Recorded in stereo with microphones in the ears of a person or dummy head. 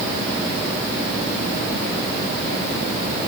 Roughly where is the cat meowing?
I don't hear a cat meowing.